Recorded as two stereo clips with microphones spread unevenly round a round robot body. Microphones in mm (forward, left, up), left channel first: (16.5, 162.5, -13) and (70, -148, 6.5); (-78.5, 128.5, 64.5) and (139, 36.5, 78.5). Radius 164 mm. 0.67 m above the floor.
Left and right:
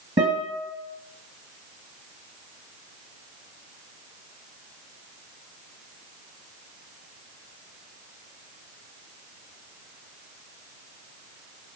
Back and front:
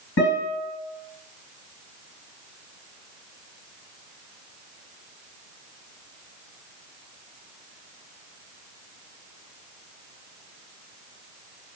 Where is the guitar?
155° right, 1.5 m.